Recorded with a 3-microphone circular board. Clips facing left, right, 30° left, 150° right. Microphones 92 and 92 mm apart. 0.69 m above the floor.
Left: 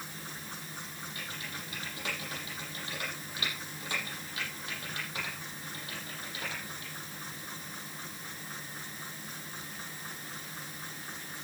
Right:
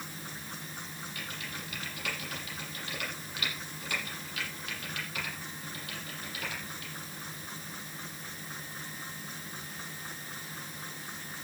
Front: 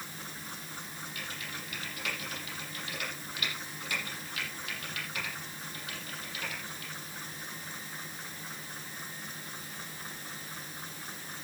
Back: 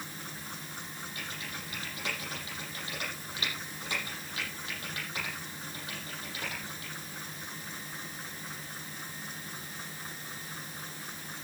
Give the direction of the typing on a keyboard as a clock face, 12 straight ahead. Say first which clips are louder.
Right 1 dB, even; 7 o'clock.